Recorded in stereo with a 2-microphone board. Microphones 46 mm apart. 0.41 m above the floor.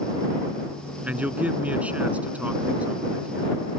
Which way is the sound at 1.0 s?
30° right (ahead or behind).